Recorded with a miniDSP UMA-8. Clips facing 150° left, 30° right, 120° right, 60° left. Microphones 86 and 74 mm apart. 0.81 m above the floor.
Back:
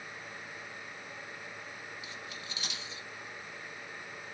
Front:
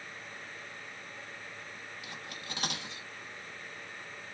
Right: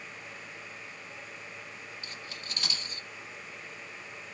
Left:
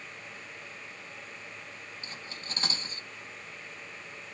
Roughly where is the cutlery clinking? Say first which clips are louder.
Even, even; ahead.